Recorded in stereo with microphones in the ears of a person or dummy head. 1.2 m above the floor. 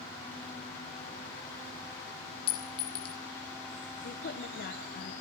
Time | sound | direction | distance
2.5 | a clink | 25° left (ahead or behind) | 0.5 m
4.0 | a woman speaking | 45° left (ahead or behind) | 0.7 m